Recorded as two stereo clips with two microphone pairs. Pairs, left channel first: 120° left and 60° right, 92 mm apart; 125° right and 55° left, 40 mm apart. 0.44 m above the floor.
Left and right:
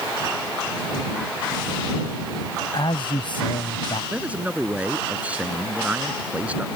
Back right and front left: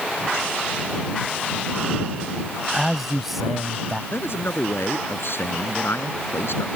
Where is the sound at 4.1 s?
135° right.